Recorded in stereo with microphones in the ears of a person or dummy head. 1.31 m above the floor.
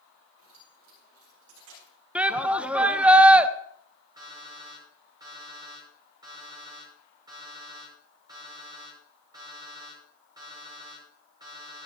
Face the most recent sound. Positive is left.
turn(degrees=-15)  # may be behind; listen again after turning